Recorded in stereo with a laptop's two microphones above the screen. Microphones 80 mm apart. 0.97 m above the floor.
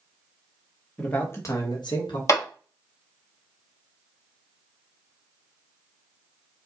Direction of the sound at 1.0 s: 10° left (ahead or behind).